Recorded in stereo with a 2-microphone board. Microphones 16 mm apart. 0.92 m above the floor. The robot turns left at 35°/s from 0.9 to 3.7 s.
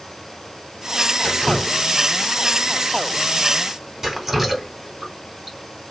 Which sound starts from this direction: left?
Dripping, at 1.2 s.